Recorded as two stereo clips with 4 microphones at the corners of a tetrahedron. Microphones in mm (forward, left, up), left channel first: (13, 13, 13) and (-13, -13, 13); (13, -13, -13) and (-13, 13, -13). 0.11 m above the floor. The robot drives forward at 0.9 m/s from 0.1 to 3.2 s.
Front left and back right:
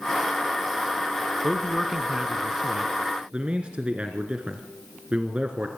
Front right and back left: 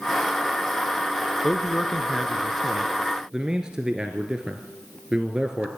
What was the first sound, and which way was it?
A man speaking, 20° right.